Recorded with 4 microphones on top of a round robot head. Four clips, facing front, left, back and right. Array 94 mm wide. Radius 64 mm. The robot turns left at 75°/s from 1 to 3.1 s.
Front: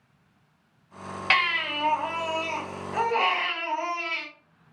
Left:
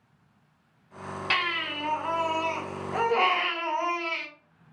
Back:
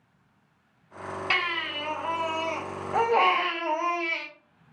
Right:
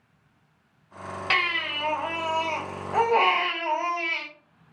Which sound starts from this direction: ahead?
A baby crying, at 1.3 s.